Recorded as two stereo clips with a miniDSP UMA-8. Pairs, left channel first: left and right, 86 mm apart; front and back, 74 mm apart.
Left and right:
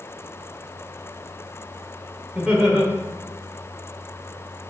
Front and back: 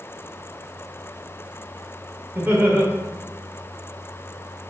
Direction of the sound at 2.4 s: 160° right.